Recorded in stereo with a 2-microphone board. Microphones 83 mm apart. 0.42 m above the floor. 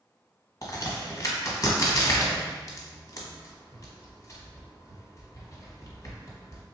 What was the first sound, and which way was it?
A crack, 45° left (ahead or behind).